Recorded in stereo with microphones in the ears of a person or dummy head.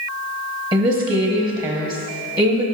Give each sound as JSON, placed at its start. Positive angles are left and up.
{"t": 0.7, "sound": "a woman speaking", "side_deg": -30, "distance_m": 0.9}